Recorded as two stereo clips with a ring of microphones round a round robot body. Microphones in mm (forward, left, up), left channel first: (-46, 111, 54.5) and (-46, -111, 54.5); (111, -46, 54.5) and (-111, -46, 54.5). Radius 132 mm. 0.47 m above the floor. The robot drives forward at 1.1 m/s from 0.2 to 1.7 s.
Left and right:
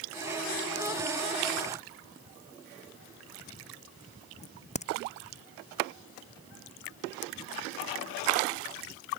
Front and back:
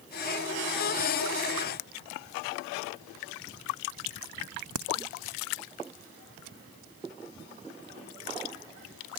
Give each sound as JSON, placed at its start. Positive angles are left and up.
{"t": 4.4, "sound": "a crack", "azimuth_deg": 150}